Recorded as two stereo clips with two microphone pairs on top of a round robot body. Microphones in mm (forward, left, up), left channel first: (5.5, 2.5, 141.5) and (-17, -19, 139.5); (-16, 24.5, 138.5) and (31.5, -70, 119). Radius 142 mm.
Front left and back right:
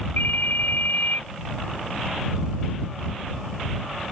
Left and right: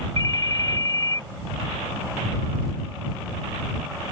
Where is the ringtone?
55° left.